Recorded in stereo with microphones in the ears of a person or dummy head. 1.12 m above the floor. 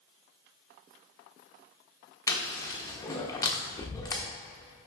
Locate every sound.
2.3 s chewing: 15° left (ahead or behind), 0.9 m